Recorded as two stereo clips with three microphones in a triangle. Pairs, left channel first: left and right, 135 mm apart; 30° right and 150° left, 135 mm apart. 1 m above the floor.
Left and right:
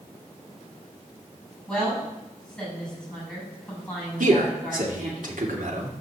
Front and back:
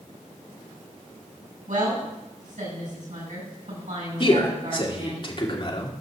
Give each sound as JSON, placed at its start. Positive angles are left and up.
{"t": 1.7, "sound": "a woman speaking", "azimuth_deg": 175, "distance_m": 7.0}
{"t": 4.2, "sound": "a man speaking", "azimuth_deg": -80, "distance_m": 2.5}